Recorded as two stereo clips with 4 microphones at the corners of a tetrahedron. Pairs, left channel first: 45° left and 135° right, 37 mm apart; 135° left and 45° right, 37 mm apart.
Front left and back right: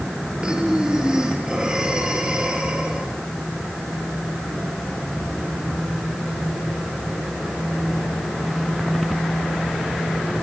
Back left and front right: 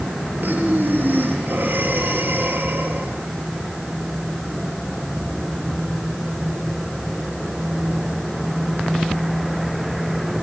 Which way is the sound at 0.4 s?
70° right.